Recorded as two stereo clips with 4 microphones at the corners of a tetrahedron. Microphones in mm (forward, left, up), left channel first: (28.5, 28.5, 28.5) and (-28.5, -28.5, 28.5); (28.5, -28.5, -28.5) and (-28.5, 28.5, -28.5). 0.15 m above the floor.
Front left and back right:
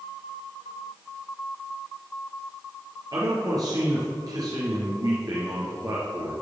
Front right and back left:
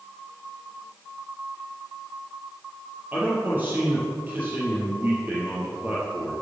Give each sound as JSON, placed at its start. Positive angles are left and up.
{"t": 3.1, "sound": "a man speaking", "azimuth_deg": -165, "distance_m": 4.0}